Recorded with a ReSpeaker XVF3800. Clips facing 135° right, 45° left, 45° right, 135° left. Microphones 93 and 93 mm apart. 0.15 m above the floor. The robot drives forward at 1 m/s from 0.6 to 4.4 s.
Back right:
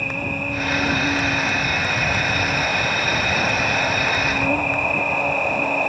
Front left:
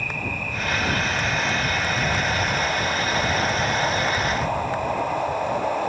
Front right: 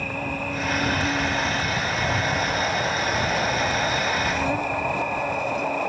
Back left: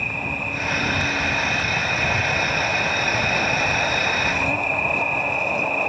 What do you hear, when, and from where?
0.0 s an insect: 95° right; by 5.9 s 115° right